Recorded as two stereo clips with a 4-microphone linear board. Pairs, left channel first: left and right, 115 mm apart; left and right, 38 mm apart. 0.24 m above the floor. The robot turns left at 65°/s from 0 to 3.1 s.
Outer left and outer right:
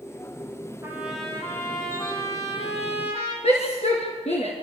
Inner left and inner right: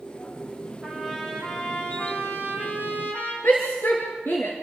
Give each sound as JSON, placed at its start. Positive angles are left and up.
{"t": 0.8, "sound": "a trumpet", "azimuth_deg": -160, "distance_m": 6.5}
{"t": 3.4, "sound": "a shout", "side_deg": 70, "distance_m": 3.5}